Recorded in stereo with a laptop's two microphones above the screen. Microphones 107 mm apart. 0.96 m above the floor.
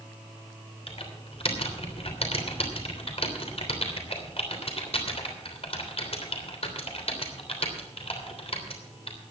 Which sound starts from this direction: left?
Typing on a keyboard, at 0.9 s.